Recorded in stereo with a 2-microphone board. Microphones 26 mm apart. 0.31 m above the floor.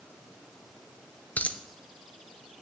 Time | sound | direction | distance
1.4 | a dropped coin | 75° left (ahead or behind) | 0.6 m